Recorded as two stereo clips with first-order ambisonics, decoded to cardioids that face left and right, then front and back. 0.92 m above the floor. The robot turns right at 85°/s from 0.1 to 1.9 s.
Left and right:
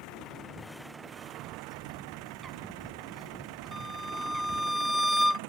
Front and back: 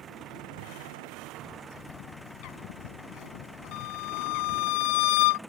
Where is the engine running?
115° left; by 5.5 s 90° right.